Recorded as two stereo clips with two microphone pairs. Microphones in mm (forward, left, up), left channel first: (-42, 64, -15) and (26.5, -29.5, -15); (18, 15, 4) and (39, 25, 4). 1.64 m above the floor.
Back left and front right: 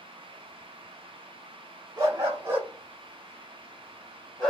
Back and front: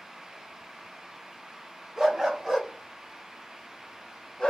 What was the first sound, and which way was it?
A dog barking, 10° right.